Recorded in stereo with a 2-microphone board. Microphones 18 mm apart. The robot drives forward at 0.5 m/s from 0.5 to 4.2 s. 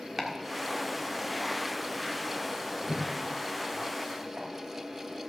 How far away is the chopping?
About 1.5 m.